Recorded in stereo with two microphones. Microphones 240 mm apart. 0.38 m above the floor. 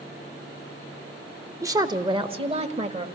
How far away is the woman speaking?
About 0.9 m.